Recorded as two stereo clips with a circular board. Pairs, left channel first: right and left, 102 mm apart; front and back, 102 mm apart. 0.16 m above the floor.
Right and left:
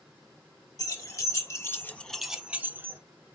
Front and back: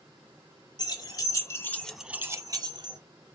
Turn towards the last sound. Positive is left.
turn(degrees=155)